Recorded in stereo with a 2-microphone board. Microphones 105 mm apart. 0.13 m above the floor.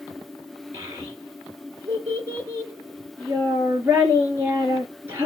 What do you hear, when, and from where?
0.7 s a child speaking: 20° right (ahead or behind), 1.5 m